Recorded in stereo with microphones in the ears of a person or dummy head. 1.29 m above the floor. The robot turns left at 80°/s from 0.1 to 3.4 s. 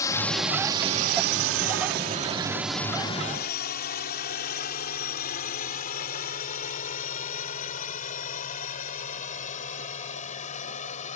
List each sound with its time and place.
0.0 s a drone: 15° left (ahead or behind); by 11.2 s 40° left (ahead or behind)